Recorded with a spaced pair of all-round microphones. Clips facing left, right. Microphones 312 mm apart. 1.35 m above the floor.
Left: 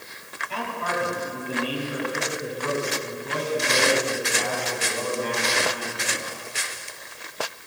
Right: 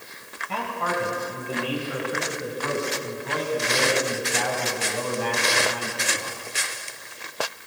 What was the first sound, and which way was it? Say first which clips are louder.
A man speaking: right 1 dB; 65° right (ahead or behind).